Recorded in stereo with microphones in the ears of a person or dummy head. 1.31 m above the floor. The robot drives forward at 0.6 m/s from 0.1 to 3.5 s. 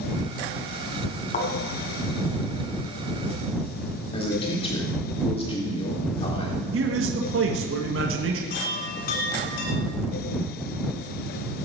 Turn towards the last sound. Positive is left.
turn(degrees=60)  # may be behind; listen again after turning